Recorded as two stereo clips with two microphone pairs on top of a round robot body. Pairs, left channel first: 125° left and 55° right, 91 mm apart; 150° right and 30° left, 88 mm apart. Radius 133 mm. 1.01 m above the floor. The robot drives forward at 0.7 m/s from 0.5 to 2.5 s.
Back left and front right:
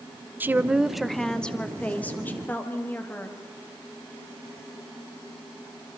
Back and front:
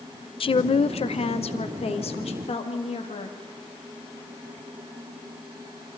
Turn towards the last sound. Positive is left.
turn(degrees=-165)